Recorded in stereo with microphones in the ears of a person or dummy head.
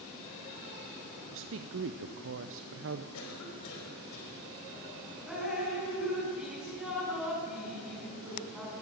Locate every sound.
1.3 s a woman speaking: 55° right (ahead or behind), 0.6 m
3.1 s a cough: 85° left, 5.5 m
5.3 s dripping: centre (ahead or behind), 5.5 m